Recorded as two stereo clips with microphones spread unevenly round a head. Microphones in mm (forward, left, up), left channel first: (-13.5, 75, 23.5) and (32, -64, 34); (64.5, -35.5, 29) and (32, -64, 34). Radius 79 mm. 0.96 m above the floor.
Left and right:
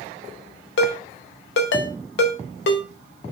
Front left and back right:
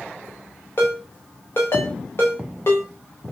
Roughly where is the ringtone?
Left.